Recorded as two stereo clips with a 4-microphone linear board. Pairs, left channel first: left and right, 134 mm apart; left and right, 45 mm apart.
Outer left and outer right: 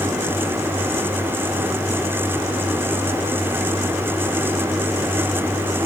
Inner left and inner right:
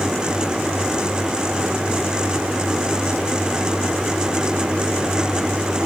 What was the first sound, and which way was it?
Only background noise.